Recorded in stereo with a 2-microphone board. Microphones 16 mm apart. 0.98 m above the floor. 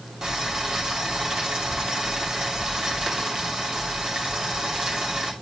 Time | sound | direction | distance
0.2 | boiling | 45° right (ahead or behind) | 3 m